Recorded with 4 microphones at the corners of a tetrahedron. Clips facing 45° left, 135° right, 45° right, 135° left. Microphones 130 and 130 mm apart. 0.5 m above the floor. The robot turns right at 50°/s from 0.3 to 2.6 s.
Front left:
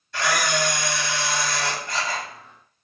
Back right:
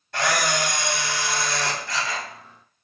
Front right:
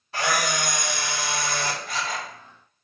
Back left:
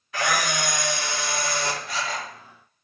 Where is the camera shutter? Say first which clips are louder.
Even, even; 100° right, 1.8 m; by 2.2 s 5° right, 1.8 m.